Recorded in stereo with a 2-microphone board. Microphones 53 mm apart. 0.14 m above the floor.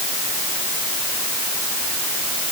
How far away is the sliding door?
No sliding door in this recording.